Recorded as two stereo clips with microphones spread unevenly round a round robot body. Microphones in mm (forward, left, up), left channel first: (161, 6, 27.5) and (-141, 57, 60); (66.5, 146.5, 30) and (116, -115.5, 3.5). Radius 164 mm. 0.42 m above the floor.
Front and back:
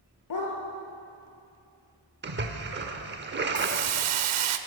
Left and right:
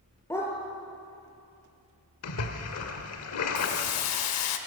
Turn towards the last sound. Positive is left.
turn(degrees=135)